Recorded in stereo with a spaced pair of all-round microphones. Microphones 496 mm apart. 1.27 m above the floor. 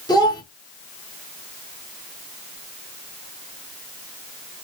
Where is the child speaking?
10° left (ahead or behind), 1.2 m.